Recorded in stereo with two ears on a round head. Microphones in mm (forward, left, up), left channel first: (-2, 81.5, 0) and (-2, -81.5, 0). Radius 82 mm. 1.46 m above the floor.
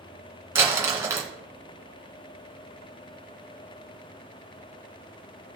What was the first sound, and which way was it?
Crumpling, 15° right (ahead or behind).